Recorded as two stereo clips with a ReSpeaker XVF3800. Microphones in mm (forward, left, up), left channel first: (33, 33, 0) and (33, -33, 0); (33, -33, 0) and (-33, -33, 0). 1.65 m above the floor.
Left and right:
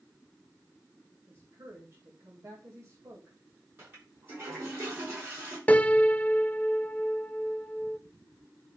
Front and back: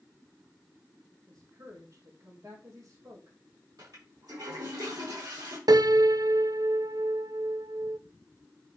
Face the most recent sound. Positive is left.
turn(degrees=160)